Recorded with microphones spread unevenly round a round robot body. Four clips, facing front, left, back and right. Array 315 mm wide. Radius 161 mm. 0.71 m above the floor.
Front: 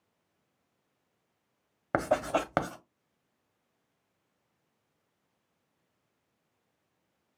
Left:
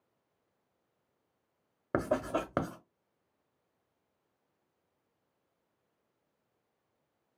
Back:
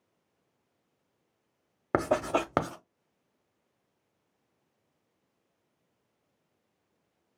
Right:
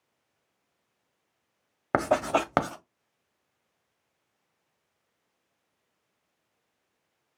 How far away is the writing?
About 0.6 m.